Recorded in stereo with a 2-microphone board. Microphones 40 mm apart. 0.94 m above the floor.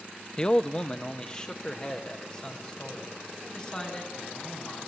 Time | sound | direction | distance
0.4 | a man speaking | 20° left (ahead or behind) | 0.5 m